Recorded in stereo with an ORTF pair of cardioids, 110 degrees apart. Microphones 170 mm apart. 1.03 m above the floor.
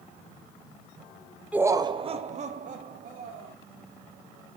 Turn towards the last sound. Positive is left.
turn(degrees=-55)